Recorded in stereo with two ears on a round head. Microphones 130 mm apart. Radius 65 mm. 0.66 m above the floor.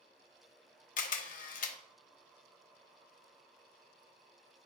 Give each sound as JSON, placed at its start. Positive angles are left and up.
{"t": 1.0, "sound": "a camera shutter", "side_deg": 60, "distance_m": 0.8}